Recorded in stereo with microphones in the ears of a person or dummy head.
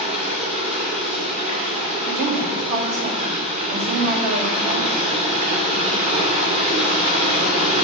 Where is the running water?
35° right (ahead or behind), 2.5 m.